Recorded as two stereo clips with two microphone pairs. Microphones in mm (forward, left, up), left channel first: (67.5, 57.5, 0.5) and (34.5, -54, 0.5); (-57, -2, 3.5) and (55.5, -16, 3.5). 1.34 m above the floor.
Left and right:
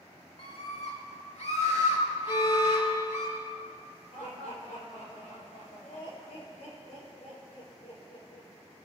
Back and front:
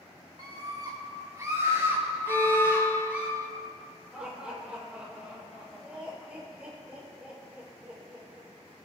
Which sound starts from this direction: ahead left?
A scream, at 0.4 s.